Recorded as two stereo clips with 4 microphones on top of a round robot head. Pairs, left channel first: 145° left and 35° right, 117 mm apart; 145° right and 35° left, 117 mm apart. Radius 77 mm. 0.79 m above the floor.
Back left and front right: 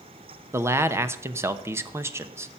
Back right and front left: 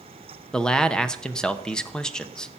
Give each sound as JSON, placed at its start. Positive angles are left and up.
{"t": 0.5, "sound": "a man speaking", "azimuth_deg": -70, "distance_m": 1.0}